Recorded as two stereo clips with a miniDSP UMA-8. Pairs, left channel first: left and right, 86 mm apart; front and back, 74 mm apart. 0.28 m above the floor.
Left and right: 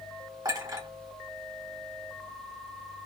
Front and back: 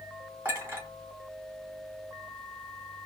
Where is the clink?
120° right, 1.9 m.